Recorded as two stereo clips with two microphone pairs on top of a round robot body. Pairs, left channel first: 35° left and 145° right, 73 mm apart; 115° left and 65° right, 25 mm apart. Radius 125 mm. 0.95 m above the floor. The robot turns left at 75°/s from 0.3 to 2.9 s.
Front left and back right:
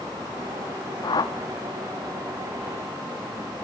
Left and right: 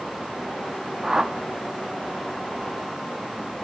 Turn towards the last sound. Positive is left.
turn(degrees=-130)